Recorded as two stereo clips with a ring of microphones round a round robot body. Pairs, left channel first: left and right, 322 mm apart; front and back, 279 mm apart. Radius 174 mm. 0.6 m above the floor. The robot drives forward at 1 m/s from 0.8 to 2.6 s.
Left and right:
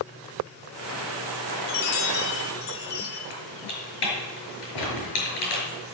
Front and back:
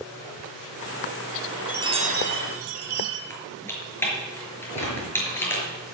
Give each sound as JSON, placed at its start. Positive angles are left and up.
{"t": 1.7, "sound": "a chime", "azimuth_deg": 95, "distance_m": 0.8}
{"t": 3.3, "sound": "typing on a keyboard", "azimuth_deg": 80, "distance_m": 6.0}
{"t": 4.8, "sound": "a gunshot", "azimuth_deg": 65, "distance_m": 6.0}